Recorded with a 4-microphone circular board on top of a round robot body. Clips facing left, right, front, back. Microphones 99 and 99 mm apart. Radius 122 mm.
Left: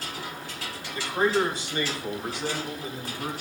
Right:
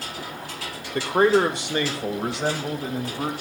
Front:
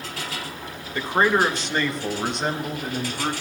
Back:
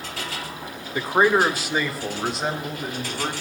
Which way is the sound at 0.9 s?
105° right.